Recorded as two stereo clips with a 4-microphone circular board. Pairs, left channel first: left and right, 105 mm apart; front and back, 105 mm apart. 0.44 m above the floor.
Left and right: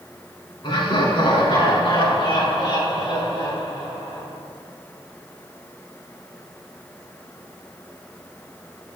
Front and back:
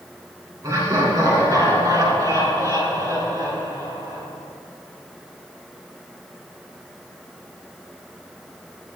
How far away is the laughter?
About 4 m.